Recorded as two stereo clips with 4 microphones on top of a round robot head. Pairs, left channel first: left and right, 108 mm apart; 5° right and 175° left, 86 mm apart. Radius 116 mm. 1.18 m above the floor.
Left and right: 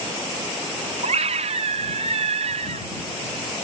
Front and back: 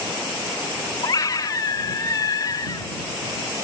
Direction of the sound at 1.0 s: 60° right.